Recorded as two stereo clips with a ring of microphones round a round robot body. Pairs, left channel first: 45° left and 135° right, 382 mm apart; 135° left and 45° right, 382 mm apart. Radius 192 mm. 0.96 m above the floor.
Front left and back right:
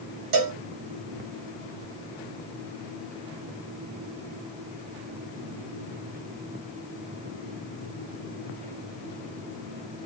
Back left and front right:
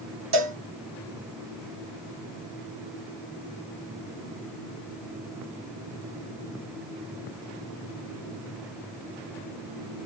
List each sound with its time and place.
0.3 s a cowbell: 95° right, 1.6 m